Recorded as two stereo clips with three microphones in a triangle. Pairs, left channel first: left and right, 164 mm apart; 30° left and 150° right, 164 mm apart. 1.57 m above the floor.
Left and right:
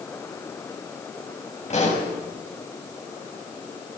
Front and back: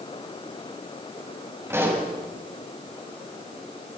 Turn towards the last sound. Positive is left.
turn(degrees=135)